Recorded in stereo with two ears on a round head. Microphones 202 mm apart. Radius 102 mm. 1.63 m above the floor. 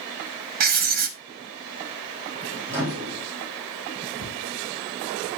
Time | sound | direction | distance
0.6 | writing | 40° right (ahead or behind) | 1.3 m
2.7 | a microwave | 10° right (ahead or behind) | 3.5 m
4.2 | a cupboard door | 10° right (ahead or behind) | 7 m